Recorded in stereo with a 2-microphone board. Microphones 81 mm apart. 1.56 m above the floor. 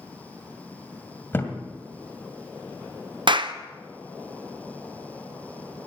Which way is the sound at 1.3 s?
25° left (ahead or behind).